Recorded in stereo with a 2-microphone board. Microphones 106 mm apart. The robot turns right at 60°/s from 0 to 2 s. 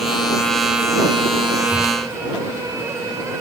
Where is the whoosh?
25° left (ahead or behind); by 2.0 s 45° left (ahead or behind).